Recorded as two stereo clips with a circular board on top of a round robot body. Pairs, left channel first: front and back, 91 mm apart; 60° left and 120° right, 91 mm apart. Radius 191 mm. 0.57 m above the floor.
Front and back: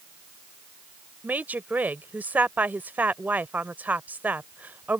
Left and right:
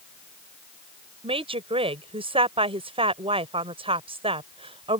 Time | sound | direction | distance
1.2 | a woman speaking | 105° right | ?